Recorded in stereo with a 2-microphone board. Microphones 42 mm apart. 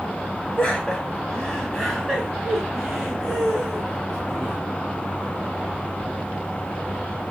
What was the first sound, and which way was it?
Laughter, 25° left (ahead or behind).